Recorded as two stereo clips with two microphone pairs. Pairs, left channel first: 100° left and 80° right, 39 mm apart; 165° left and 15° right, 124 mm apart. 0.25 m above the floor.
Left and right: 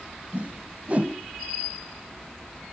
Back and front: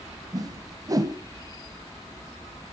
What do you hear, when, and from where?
0.3 s a whoosh: 60° right, 1.0 m